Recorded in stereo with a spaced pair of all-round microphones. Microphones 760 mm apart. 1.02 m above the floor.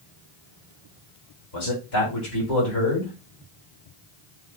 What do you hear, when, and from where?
1.5 s a man speaking: 80° left, 3 m